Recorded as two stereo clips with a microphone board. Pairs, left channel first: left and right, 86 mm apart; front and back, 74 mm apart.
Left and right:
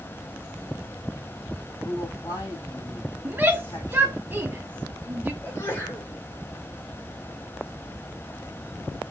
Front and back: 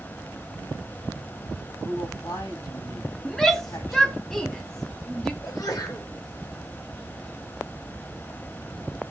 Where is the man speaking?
35° left, 3.5 m.